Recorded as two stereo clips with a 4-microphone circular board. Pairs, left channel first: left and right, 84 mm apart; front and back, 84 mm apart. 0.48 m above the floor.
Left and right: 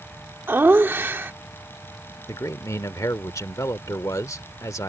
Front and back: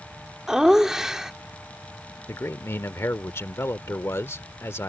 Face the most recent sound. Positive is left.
turn(degrees=50)